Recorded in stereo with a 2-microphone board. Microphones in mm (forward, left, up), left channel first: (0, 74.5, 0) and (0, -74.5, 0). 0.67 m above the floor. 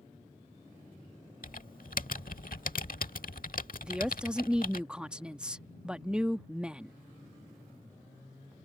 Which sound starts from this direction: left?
Typing on a keyboard, at 1.4 s.